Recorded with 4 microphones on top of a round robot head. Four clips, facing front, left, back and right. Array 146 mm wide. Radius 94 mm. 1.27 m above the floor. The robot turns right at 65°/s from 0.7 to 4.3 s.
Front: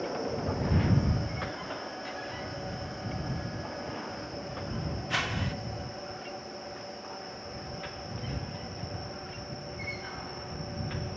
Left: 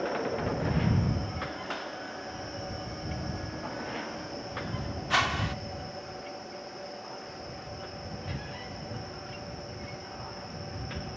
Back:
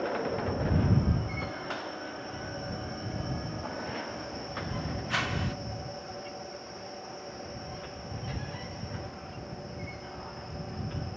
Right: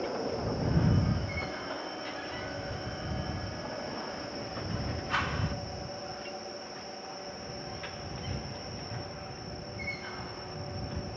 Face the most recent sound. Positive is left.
turn(degrees=85)